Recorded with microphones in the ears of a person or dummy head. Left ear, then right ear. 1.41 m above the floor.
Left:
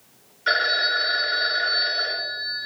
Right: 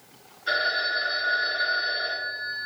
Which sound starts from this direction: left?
A phone ringing, at 0.5 s.